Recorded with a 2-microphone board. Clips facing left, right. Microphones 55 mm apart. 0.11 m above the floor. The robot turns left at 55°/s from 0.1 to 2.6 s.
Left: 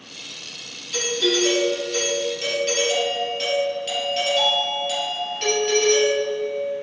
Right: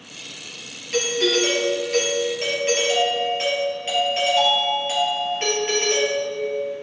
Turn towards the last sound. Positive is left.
turn(degrees=-145)